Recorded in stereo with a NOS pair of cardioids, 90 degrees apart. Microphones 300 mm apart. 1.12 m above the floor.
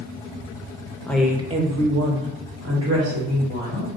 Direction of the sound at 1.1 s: 5° left.